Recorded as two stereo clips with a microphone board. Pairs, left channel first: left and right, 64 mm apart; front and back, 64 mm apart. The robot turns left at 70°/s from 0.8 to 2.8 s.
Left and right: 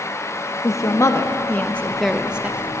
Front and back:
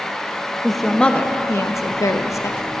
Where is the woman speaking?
90° left, 0.5 m; by 2.7 s 45° right, 0.5 m.